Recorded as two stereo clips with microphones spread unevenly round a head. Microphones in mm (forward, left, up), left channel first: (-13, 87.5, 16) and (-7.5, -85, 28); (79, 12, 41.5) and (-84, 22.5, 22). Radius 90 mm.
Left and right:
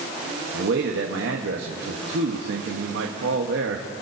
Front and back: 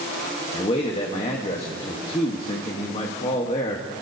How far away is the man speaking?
About 1.2 m.